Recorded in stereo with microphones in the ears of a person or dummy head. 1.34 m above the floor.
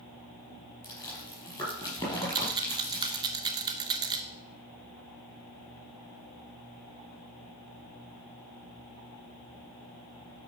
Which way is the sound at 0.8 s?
20° left (ahead or behind).